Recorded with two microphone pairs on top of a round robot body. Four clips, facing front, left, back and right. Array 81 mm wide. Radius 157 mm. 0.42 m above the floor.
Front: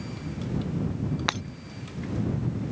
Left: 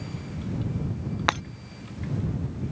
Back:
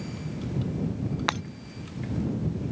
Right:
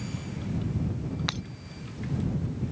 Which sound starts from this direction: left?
Breaking glass, at 1.3 s.